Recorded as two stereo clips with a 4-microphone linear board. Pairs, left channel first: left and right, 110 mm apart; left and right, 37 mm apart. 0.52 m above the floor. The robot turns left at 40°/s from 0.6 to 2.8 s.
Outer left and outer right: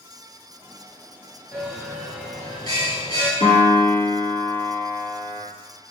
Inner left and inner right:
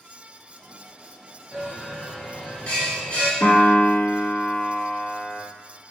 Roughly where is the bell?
Behind.